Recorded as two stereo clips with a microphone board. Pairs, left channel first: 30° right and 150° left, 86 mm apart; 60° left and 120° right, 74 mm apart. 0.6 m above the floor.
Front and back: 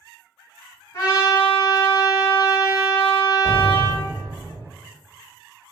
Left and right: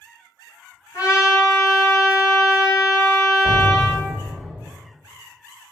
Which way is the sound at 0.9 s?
15° left.